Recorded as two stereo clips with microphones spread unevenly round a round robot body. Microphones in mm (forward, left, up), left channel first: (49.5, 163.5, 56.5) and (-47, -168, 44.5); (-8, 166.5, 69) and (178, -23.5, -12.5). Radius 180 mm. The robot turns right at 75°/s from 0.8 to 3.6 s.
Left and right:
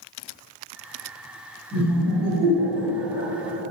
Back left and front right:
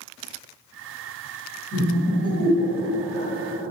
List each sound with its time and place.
1.7 s laughter: 175° left, 1.5 m; by 3.3 s 70° right, 1.5 m